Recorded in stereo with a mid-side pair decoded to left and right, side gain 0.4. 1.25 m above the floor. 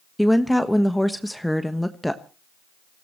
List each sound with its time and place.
0.2 s a woman speaking: 5° left, 1.2 m